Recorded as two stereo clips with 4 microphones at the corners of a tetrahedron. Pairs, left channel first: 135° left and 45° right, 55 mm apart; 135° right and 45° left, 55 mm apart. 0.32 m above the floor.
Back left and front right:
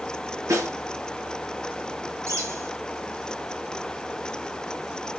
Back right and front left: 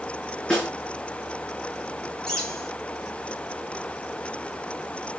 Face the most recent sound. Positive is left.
turn(degrees=-60)